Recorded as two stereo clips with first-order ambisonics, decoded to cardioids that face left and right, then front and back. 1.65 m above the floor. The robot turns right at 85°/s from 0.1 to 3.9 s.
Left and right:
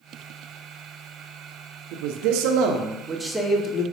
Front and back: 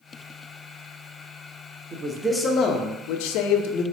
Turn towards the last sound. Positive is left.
turn(degrees=50)